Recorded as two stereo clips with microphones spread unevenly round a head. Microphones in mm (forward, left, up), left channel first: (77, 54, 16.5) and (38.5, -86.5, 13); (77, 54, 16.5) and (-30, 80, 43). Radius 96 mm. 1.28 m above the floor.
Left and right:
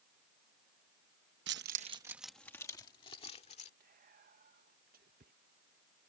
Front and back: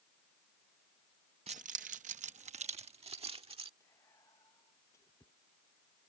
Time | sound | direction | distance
1.5 | keys jangling | 135° right | ?
3.8 | whispering | 85° right | ?